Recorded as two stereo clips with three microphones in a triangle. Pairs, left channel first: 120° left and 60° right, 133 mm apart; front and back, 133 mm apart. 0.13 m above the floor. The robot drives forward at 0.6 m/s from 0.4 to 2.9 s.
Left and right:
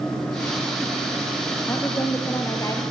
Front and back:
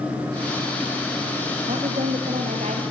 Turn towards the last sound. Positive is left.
turn(degrees=180)